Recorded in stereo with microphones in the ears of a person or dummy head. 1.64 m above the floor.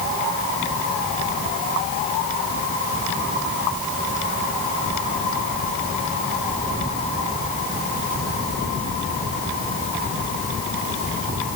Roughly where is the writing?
I don't hear writing.